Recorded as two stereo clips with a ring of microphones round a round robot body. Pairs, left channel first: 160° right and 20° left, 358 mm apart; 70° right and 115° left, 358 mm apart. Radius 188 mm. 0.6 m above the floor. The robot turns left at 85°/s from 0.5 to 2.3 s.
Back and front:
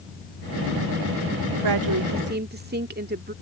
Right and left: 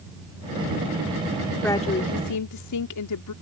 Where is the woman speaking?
20° left; by 3.3 s 35° right.